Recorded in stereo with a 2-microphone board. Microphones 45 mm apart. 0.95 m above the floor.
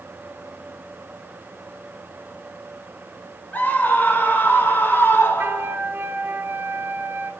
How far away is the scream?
About 5 m.